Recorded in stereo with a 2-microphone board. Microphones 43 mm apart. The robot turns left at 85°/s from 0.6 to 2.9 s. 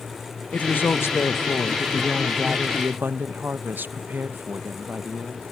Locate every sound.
0.5 s a woman speaking: 145° left, 0.8 m; by 5.4 s 50° right, 0.8 m